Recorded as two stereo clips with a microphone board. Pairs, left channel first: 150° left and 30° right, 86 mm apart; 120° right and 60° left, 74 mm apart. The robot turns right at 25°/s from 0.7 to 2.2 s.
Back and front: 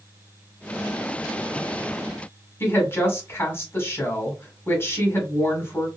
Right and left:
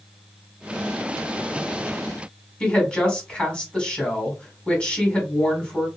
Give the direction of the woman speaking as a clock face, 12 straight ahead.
6 o'clock.